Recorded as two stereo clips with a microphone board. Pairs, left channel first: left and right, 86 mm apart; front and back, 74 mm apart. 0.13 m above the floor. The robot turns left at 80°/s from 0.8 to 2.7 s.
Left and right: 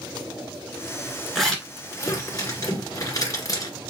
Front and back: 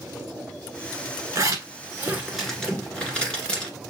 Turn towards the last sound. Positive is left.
turn(degrees=70)